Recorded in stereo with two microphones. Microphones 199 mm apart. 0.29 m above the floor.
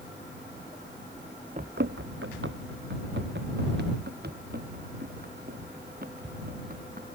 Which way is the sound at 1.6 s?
40° right (ahead or behind).